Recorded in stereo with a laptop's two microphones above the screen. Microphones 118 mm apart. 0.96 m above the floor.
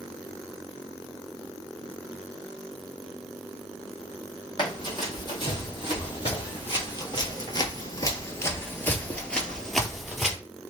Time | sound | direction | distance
4.6 | running footsteps | 40° left (ahead or behind) | 2 m